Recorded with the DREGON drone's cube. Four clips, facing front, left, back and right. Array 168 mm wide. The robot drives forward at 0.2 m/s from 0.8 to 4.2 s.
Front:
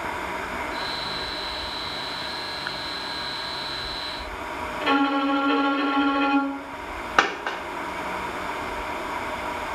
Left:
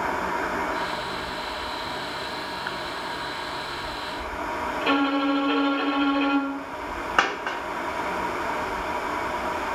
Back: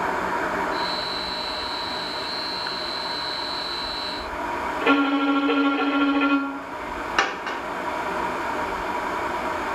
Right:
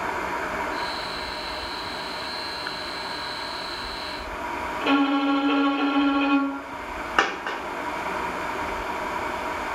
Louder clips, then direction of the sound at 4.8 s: Right 2 dB, back 1 dB; 175° right.